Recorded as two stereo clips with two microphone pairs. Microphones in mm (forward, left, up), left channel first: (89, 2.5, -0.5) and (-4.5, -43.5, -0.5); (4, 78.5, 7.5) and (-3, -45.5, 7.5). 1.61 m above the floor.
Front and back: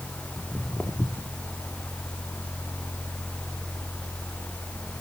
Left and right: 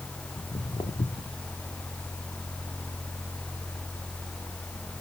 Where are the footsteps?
105° left, 2 m; by 1.4 s 80° left, 2.5 m.